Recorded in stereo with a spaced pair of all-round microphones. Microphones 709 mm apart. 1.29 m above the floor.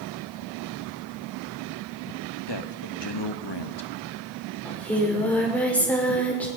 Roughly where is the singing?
Centre.